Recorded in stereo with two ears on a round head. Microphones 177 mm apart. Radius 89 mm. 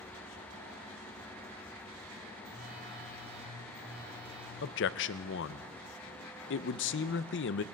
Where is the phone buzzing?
10° right (ahead or behind), 8 m.